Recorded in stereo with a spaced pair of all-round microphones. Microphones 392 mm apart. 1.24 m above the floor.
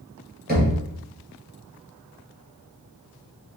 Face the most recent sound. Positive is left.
turn(degrees=-25)  # may be behind; listen again after turning